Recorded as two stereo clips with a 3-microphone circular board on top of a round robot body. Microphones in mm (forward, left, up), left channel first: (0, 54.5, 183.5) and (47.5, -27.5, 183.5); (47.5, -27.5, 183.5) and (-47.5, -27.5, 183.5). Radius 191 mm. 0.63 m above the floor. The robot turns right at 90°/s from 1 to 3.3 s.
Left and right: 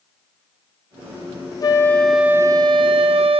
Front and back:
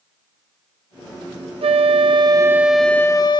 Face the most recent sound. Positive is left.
turn(degrees=-40)